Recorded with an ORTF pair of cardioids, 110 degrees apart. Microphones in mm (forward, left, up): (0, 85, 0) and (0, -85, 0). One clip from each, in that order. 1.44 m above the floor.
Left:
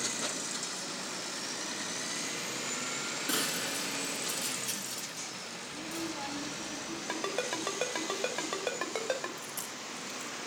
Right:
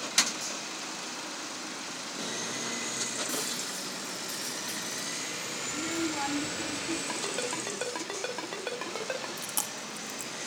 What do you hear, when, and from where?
3.3 s breaking glass: 25° left, 7.5 m
5.7 s a child speaking: 55° right, 2.5 m
7.1 s a ringtone: 10° left, 5 m
9.4 s chewing: 65° right, 3 m